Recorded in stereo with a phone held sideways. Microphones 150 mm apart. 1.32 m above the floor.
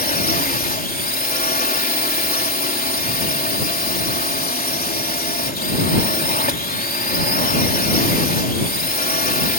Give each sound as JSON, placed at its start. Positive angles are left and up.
{"t": 0.0, "sound": "a drone", "side_deg": 80}